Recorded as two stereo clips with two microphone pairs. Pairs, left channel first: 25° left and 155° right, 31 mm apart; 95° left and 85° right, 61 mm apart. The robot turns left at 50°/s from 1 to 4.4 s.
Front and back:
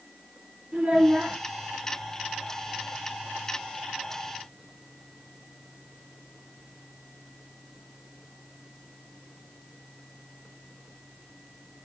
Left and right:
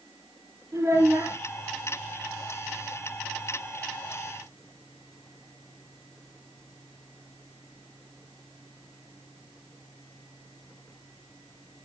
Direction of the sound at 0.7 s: 135° right.